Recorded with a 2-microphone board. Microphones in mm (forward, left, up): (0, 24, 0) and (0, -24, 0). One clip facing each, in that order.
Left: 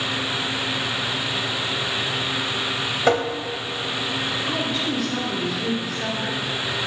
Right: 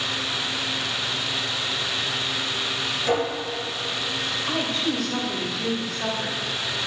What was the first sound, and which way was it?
Tapping, 65° left (ahead or behind).